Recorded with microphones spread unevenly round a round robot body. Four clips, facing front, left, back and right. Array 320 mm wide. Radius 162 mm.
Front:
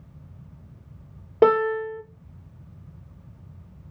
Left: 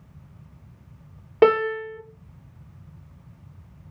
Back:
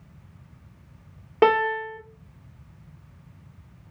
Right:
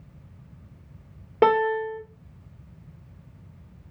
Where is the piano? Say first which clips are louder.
Left 2 dB, front 1 dB; 25° right, 1.0 m.